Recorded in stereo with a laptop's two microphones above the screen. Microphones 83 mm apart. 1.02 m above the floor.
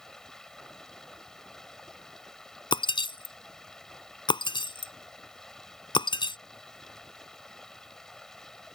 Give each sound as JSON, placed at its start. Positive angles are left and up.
{"t": 0.0, "sound": "running water", "side_deg": 5}
{"t": 2.7, "sound": "breaking glass", "side_deg": 75}